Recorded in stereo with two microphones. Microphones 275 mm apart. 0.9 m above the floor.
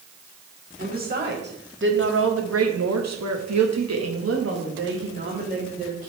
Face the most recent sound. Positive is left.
turn(degrees=-25)  # may be behind; listen again after turning